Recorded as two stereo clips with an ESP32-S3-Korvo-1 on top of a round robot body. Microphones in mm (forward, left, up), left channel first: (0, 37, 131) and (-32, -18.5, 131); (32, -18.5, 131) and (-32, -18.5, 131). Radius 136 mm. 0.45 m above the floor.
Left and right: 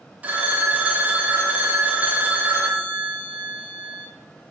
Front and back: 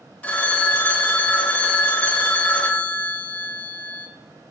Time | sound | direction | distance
0.2 | a phone ringing | 60° right | 0.8 m